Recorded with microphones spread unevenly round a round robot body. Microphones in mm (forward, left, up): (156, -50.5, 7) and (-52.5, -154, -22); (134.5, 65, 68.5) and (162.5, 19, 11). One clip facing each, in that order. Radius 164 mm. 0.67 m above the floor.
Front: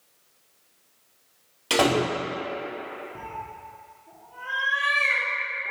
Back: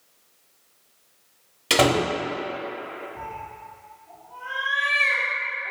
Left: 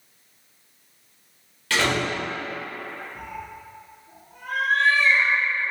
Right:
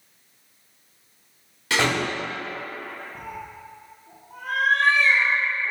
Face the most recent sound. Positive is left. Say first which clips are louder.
# back 1 dB, even
turn(degrees=-25)